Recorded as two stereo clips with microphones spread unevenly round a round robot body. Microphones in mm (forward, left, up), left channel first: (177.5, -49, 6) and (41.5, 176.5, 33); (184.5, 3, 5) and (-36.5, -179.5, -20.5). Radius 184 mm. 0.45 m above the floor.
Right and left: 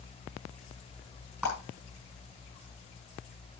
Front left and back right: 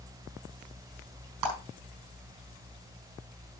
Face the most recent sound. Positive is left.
turn(degrees=-150)